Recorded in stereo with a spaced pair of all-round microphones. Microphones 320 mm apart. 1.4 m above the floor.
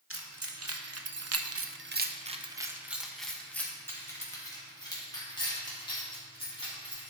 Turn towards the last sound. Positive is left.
turn(degrees=15)  # may be behind; listen again after turning